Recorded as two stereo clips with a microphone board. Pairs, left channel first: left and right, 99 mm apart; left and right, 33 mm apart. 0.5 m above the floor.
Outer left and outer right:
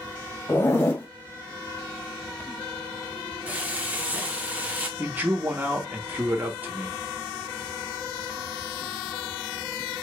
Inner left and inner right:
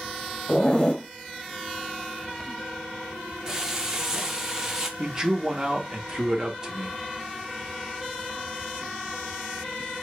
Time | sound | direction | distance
0.5 | a zipper | 25° left (ahead or behind) | 1.0 m
3.5 | frying | 15° right (ahead or behind) | 0.8 m
5.0 | a man speaking | 20° right (ahead or behind) | 0.8 m